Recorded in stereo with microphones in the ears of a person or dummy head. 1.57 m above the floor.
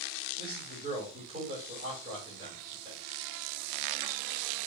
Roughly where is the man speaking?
Right.